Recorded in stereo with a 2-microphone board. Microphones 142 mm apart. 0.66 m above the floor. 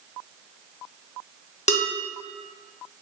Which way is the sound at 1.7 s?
55° left (ahead or behind).